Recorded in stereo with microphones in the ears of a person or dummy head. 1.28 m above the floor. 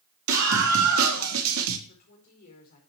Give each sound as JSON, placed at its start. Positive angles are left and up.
{"t": 0.3, "sound": "a scream", "side_deg": -65, "distance_m": 2.5}
{"t": 1.9, "sound": "a woman speaking", "side_deg": 50, "distance_m": 5.0}